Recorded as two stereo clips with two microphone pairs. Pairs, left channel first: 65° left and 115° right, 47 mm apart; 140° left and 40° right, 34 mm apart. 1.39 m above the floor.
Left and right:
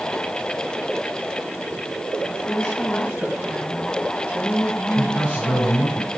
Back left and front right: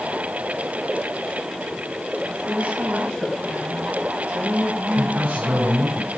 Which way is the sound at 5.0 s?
15° left.